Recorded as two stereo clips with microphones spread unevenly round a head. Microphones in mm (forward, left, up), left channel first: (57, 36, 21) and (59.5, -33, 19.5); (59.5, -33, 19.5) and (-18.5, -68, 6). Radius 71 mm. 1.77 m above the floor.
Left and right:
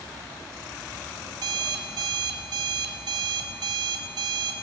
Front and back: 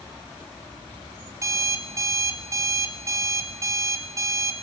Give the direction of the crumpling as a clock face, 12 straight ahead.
No crumpling in this recording.